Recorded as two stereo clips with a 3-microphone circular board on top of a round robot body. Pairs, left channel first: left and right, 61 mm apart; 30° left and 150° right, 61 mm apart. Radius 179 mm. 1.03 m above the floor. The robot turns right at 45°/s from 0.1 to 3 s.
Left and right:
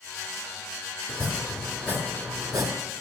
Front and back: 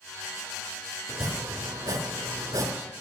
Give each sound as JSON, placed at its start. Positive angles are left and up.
{"t": 1.1, "sound": "chopping", "azimuth_deg": 160, "distance_m": 0.8}